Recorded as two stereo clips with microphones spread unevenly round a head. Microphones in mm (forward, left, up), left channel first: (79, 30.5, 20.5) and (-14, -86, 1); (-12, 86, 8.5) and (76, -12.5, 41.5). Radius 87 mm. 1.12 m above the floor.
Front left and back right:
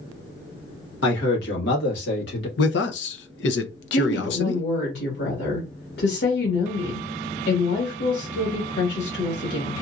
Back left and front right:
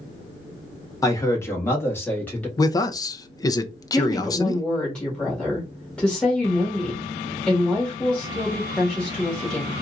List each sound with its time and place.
1.0 s a man speaking: 70° left, 1.3 m; by 2.5 s 55° left, 2.0 m
2.6 s a man speaking: 70° left, 0.6 m
3.9 s a woman speaking: 55° left, 1.9 m